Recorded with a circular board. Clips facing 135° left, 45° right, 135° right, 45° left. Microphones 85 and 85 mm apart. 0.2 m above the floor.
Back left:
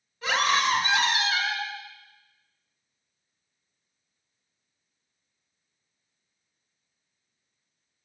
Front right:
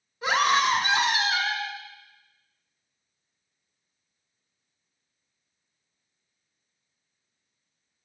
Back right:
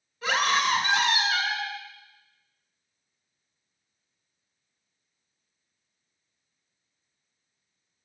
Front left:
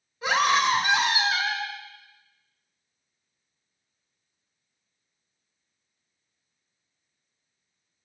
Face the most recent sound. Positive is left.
turn(degrees=0)